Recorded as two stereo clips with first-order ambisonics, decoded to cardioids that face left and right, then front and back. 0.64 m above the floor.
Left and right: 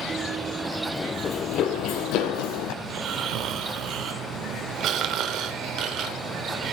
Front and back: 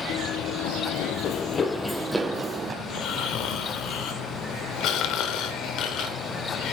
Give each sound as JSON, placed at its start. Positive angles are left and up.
{"t": 0.1, "sound": "running footsteps", "azimuth_deg": -20, "distance_m": 1.3}
{"t": 2.8, "sound": "snoring", "azimuth_deg": -45, "distance_m": 1.1}